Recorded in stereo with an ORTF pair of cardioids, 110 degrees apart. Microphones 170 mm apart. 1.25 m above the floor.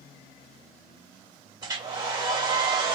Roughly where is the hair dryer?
Ahead right.